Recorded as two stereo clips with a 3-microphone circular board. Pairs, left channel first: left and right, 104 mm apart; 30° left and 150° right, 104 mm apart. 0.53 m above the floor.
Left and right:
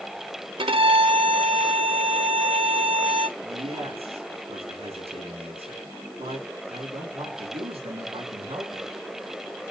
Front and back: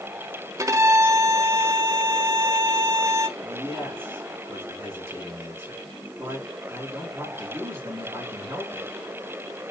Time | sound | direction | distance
0.6 | a violin | 95° right | 0.8 m
3.4 | a man speaking | 85° right | 4.5 m